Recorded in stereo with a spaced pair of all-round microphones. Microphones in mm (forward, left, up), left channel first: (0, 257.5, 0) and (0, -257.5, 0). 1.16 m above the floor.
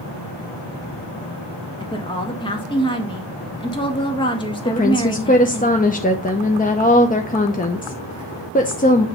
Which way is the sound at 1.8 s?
10° left (ahead or behind).